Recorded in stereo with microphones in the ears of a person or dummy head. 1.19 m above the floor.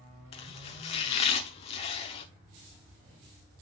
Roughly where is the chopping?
Left.